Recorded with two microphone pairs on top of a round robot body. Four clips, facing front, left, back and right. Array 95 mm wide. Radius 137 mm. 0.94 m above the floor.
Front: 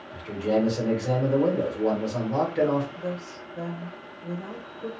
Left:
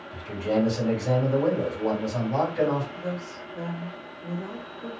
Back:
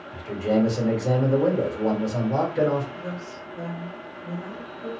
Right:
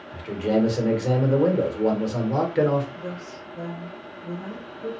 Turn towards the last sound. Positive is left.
turn(degrees=10)